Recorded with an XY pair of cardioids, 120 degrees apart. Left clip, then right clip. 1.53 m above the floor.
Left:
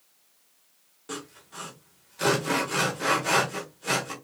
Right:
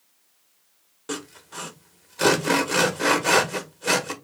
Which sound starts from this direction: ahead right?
Sawing, at 1.1 s.